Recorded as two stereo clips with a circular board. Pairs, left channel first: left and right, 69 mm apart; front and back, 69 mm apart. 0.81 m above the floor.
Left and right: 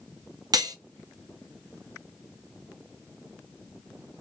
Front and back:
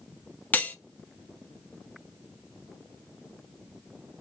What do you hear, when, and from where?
0.5 s cutlery clinking: 65° right, 0.6 m